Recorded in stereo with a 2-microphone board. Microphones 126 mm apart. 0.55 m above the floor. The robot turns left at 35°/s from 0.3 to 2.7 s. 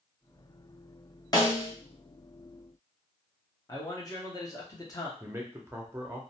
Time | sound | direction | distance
1.3 | a snare drum | 35° left (ahead or behind) | 0.7 m
3.7 | a man speaking | 30° left (ahead or behind) | 0.7 m
5.2 | a man speaking | 20° right (ahead or behind) | 0.6 m